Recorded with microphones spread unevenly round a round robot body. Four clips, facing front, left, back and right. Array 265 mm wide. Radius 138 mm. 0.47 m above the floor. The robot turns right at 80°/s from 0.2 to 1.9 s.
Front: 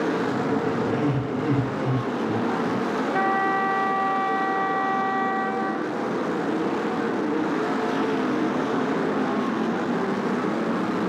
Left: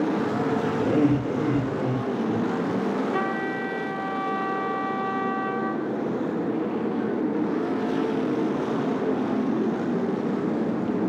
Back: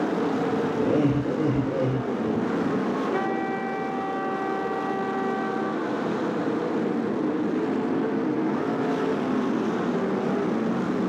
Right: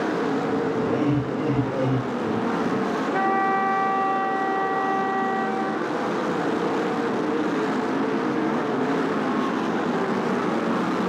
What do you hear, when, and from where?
0.8 s laughter: 115° left, 6.5 m; by 2.8 s 155° right, 6.5 m
3.1 s a trumpet: 110° left, 6 m